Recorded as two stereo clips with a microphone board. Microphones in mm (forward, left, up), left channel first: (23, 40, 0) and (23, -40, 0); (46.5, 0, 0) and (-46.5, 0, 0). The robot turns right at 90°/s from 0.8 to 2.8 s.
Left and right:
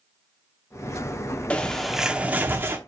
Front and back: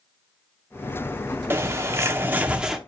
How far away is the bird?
About 0.9 m.